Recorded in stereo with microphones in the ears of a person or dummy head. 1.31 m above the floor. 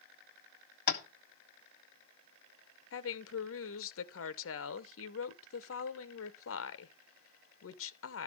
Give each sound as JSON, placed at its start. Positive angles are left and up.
{"t": 0.9, "sound": "tapping", "side_deg": 45, "distance_m": 1.2}
{"t": 2.9, "sound": "a woman speaking", "side_deg": 65, "distance_m": 0.9}